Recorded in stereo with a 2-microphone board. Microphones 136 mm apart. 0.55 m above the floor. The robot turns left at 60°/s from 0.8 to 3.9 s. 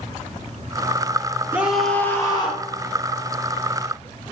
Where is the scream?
165° right, 1.6 m; by 2.7 s 125° left, 1.6 m.